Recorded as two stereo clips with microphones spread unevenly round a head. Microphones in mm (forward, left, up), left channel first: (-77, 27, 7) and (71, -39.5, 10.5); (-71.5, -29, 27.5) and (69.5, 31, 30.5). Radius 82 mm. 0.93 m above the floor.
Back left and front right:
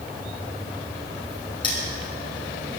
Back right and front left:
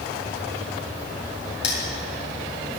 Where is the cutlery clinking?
140° right, 5.5 m.